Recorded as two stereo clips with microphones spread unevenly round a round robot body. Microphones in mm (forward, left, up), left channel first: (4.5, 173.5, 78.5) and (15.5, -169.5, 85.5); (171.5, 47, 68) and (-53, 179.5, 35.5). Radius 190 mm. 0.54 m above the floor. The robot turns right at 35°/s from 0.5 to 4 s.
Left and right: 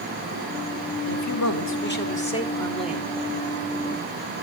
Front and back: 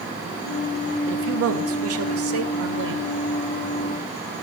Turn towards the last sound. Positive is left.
turn(degrees=-135)